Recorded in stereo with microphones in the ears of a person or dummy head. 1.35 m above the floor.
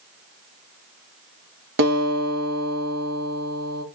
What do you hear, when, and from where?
1.8 s a guitar: 55° right (ahead or behind), 1.0 m